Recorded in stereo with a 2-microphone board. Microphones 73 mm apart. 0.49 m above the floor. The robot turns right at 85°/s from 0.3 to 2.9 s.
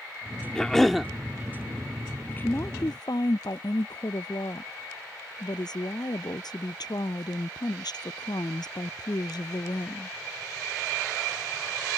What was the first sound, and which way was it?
A cough, 10° left (ahead or behind).